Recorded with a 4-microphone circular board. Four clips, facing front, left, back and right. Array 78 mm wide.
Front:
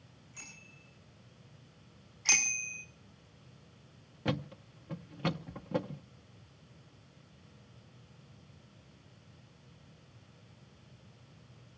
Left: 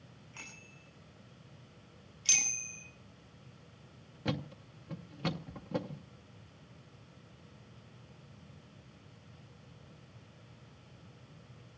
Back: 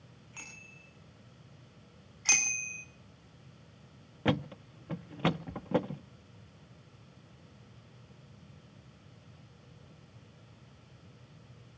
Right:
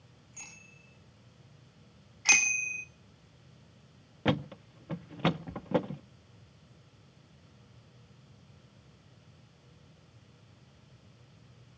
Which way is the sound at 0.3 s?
140° left.